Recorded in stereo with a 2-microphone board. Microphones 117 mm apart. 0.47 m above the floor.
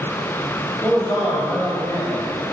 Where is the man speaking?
10° left (ahead or behind), 1.9 m; by 2.3 s 25° left (ahead or behind), 2.5 m.